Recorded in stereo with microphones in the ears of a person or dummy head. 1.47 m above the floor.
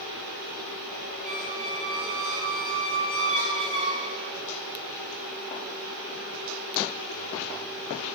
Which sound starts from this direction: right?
A squeak, at 1.2 s.